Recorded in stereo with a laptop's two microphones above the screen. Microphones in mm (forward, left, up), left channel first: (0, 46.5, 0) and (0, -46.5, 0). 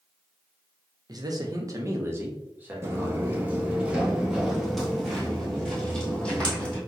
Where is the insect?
No insect in this recording.